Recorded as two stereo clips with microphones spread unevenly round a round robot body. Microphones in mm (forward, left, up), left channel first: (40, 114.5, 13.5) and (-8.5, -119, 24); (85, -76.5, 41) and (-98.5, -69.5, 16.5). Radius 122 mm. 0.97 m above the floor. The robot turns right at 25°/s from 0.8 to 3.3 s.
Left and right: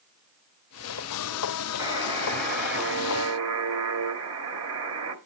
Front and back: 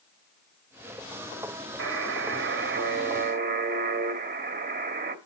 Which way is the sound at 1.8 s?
Straight behind.